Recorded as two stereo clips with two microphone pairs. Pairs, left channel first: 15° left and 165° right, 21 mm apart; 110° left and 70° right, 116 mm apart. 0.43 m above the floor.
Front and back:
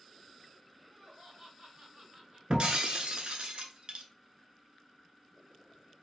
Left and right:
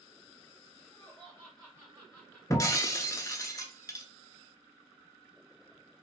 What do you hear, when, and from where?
0.8 s laughter: 175° right, 1.7 m; by 2.4 s straight behind, 2.5 m
2.5 s breaking glass: 170° left, 0.5 m